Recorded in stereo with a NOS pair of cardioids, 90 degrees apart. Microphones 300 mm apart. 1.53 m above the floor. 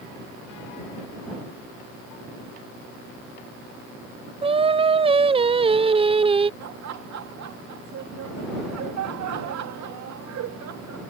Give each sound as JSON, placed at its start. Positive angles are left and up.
{"t": 4.4, "sound": "singing", "azimuth_deg": -20}
{"t": 6.6, "sound": "laughter", "azimuth_deg": -65}